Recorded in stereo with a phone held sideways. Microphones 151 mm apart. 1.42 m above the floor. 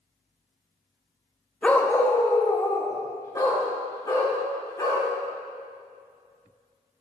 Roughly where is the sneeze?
I don't hear a sneeze.